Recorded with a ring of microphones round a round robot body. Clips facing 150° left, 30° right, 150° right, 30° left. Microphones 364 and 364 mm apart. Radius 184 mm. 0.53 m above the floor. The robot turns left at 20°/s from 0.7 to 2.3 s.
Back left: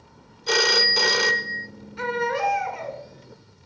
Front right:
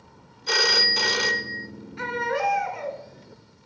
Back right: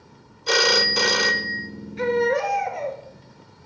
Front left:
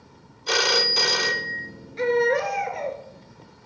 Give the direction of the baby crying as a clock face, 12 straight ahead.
8 o'clock.